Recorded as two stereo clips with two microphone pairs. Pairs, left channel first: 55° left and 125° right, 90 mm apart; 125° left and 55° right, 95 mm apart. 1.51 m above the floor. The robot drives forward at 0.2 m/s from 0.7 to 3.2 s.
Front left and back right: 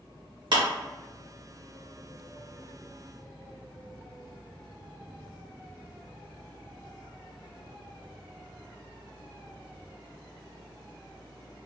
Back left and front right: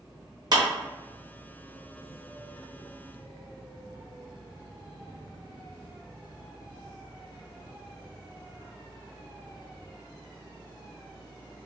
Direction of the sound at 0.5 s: 95° right.